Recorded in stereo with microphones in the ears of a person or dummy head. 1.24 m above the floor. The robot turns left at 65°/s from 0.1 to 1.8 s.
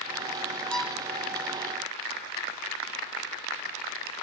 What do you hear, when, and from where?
0.7 s a violin: 10° left (ahead or behind); by 1.0 s 15° right (ahead or behind)